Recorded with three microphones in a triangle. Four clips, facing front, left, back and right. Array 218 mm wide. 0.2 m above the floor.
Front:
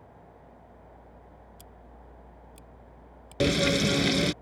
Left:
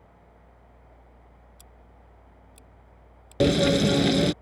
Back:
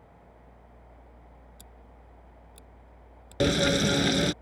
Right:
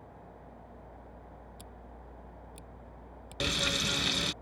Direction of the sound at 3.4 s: 95° left.